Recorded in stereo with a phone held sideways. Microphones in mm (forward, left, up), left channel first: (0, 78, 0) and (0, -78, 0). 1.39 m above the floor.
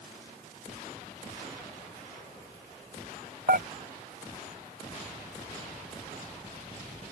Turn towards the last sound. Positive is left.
turn(degrees=-70)  # may be behind; listen again after turning